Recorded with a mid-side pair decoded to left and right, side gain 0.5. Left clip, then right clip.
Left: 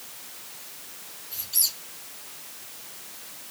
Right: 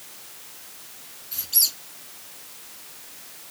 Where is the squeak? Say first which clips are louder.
Right 4 dB; 55° right, 2.5 m.